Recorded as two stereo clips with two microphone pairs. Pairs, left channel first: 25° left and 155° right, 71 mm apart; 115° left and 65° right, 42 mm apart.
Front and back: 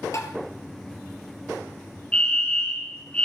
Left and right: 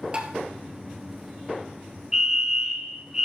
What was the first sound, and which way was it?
Tapping, 10° right.